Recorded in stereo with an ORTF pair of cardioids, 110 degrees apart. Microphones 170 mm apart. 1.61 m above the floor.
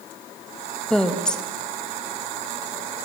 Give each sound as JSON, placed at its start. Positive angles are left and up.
{"t": 0.9, "sound": "a woman speaking", "azimuth_deg": 5, "distance_m": 2.5}